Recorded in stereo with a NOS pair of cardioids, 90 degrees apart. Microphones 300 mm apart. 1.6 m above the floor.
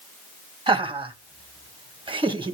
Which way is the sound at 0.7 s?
15° right.